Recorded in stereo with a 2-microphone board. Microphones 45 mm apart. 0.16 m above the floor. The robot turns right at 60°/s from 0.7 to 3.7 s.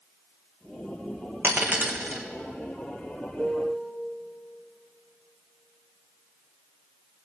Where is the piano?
20° left (ahead or behind), 0.9 m; by 3.9 s 5° left (ahead or behind), 0.9 m.